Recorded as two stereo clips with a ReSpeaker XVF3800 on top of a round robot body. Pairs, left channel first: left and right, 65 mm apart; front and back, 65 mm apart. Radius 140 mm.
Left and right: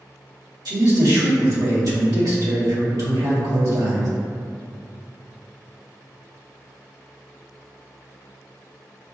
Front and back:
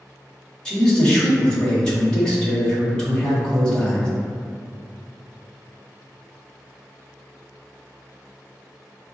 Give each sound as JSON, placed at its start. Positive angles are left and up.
{"t": 0.7, "sound": "a man speaking", "azimuth_deg": -75, "distance_m": 1.8}